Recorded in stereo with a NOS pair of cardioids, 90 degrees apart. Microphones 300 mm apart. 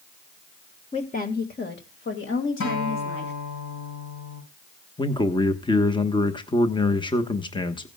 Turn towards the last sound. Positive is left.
turn(degrees=15)